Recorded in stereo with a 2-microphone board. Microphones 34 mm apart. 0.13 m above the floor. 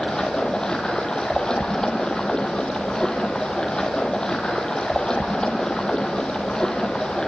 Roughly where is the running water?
Left.